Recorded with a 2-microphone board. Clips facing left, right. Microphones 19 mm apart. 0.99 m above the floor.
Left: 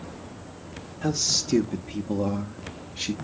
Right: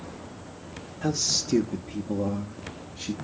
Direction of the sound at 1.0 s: Centre (ahead or behind).